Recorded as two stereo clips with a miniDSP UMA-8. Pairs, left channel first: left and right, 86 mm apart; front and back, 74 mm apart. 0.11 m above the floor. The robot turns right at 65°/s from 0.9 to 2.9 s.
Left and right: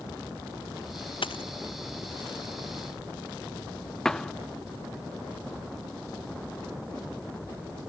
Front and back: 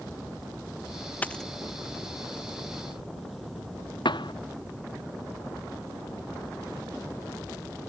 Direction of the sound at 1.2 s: 70° left.